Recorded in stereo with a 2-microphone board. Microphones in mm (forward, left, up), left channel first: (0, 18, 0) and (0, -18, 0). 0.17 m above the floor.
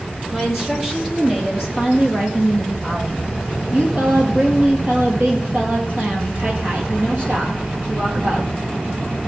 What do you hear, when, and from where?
0.3 s a woman speaking: 15° right (ahead or behind), 5 m; by 8.5 s 65° right (ahead or behind), 5.5 m